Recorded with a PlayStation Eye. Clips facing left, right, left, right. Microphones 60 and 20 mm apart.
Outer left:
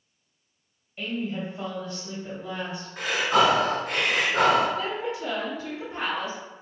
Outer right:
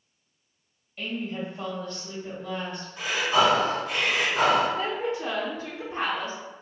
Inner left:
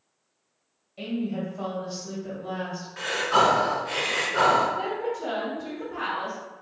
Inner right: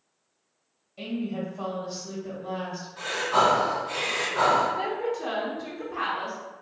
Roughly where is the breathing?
Left.